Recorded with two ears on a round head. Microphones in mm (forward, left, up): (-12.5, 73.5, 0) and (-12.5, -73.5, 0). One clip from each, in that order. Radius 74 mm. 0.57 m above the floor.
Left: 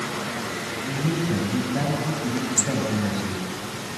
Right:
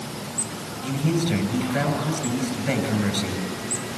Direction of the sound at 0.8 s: 70° right (ahead or behind).